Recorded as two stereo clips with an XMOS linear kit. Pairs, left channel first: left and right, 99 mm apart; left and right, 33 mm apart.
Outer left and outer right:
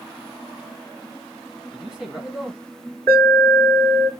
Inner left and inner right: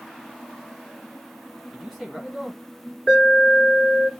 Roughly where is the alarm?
Left.